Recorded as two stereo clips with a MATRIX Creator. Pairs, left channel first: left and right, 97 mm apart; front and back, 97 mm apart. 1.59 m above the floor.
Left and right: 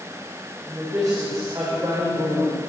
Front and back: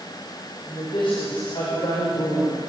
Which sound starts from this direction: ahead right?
A woman speaking, at 0.7 s.